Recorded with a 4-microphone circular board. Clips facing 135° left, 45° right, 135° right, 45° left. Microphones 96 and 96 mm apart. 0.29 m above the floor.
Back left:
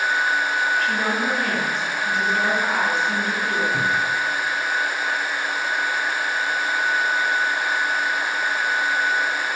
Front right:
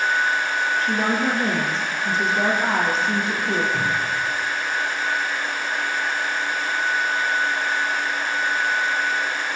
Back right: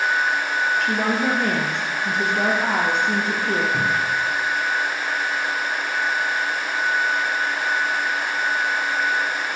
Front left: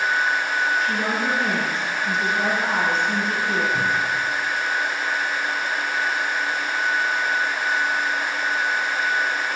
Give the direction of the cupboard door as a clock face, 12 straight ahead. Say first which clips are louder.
Back left 1 dB, back right 1 dB; 6 o'clock.